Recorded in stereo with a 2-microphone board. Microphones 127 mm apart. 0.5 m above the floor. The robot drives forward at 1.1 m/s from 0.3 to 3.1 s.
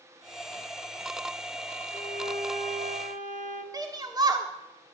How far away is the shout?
About 1.2 m.